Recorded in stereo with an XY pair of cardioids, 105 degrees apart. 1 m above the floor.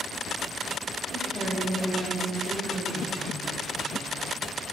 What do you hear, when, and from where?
1.1 s a woman speaking: 20° right, 4.5 m